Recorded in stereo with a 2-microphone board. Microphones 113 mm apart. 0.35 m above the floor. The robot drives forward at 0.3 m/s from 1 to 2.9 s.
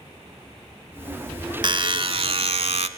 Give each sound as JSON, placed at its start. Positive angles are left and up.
{"t": 1.6, "sound": "a buzzer", "side_deg": -45, "distance_m": 0.9}